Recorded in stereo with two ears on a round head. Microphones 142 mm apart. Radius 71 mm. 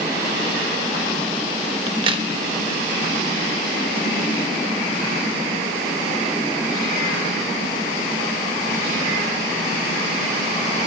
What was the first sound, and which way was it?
A crack, 30° right (ahead or behind).